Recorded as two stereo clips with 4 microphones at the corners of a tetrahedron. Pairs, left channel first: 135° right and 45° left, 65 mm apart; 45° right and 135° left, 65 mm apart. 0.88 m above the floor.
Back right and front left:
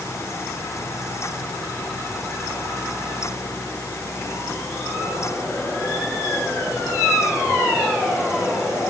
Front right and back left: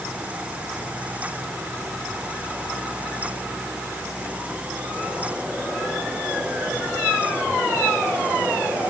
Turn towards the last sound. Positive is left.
No sound to turn to.